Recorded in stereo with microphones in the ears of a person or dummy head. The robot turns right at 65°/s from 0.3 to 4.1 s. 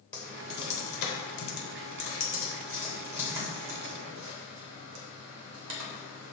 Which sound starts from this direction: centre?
Typing on a keyboard, at 0.1 s.